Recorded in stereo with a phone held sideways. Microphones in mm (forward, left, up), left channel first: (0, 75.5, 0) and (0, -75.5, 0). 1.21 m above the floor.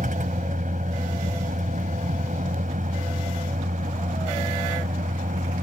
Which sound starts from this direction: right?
A vehicle, at 0.0 s.